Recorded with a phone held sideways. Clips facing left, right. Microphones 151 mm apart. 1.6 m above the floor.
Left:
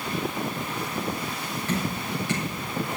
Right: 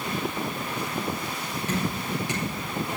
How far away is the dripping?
About 6 m.